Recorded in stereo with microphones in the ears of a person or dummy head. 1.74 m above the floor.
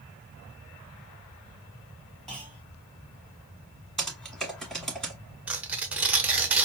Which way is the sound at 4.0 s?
5° left (ahead or behind).